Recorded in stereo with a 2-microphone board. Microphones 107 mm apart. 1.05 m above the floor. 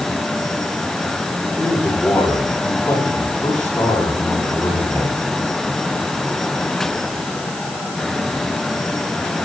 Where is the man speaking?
15° left (ahead or behind), 9 m.